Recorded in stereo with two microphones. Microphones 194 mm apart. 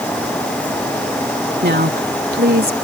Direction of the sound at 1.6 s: 60° right (ahead or behind).